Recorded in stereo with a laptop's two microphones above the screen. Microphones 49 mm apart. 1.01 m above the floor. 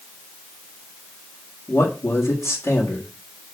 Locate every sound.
1.7 s a man speaking: 75° left (ahead or behind), 1.8 m